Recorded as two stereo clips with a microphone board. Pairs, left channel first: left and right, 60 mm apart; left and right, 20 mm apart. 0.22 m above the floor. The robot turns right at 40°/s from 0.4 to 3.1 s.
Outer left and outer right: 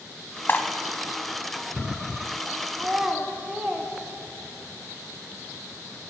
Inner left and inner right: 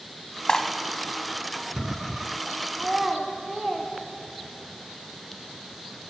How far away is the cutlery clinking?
About 0.8 m.